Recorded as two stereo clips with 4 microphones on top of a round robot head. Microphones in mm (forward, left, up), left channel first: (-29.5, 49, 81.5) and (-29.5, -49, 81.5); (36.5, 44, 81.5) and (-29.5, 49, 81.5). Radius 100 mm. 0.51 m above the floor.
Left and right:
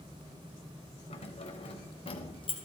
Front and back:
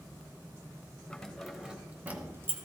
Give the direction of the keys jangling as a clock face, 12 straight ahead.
10 o'clock.